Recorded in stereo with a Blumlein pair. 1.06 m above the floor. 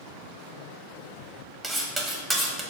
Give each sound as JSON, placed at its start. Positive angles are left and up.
{"t": 1.6, "sound": "cutlery clinking", "azimuth_deg": -10, "distance_m": 0.5}